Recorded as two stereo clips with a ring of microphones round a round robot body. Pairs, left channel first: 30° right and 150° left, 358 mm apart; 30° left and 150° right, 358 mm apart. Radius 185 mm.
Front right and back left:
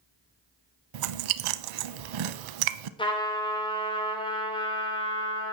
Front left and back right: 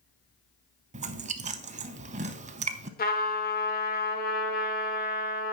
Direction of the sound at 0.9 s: 140° left.